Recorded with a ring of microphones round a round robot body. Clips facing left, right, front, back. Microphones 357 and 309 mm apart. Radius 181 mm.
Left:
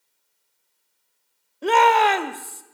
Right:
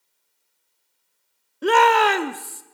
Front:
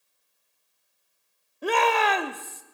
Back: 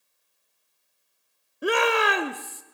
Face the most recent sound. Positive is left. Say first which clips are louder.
# right 1 dB, back 2 dB
turn(degrees=-125)